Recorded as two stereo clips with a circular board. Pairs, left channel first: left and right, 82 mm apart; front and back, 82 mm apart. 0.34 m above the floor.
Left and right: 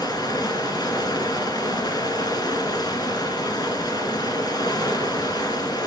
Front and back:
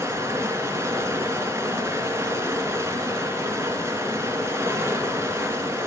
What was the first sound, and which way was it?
Running water, 120° left.